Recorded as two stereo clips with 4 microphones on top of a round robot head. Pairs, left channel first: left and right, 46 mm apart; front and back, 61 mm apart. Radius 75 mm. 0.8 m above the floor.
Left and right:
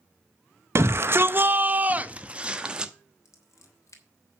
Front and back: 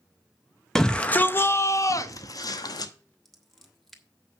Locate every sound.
0.8 s a shout: 85° right, 0.6 m; by 2.9 s 20° right, 1.3 m
3.2 s scissors: 85° left, 2 m